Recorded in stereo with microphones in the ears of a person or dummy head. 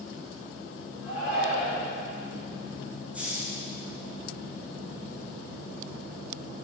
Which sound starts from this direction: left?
A shout, at 1.0 s.